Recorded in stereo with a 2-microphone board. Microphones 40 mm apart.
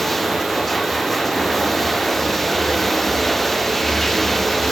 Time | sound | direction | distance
0.0 | running water | 5° left (ahead or behind) | ?